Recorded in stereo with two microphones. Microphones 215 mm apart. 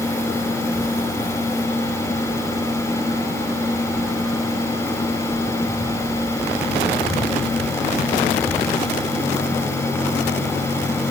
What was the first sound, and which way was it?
Only background noise.